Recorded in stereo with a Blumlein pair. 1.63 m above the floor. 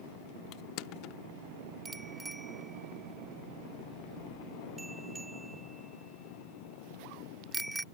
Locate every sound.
0.5 s crushing: 40° left
1.9 s a bicycle bell: 5° right